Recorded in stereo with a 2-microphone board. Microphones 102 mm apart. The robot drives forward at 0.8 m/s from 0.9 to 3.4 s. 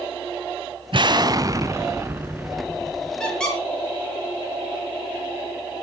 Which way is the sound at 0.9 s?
55° right (ahead or behind).